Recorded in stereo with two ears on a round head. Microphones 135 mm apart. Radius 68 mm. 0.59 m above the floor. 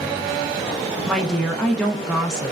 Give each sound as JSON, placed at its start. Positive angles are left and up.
{"t": 1.1, "sound": "a woman speaking", "side_deg": 5, "distance_m": 0.6}